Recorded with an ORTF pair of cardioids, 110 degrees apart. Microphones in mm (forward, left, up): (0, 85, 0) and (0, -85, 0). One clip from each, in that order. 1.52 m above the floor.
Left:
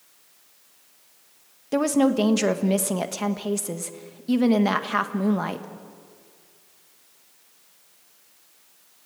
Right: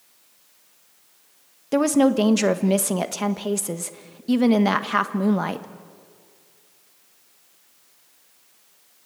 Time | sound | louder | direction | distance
1.7 | a woman speaking | right 3 dB | 15° right | 1.4 m